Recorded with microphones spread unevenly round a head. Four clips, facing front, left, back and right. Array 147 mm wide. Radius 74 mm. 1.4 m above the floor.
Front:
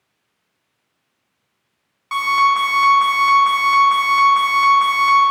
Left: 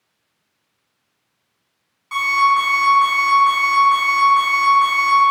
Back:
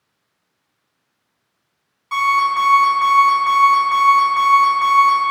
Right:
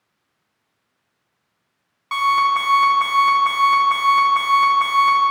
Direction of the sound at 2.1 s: 70° right.